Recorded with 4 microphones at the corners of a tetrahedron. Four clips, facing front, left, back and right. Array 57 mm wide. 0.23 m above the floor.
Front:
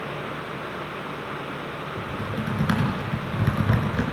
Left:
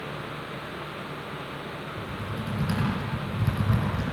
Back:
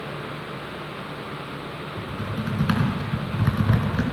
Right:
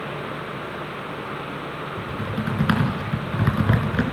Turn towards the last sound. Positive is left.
turn(degrees=-85)